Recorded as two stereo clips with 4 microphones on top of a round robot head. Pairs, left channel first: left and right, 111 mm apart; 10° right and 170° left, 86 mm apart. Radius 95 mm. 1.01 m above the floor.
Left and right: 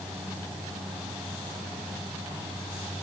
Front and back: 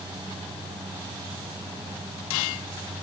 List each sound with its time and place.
Only background noise.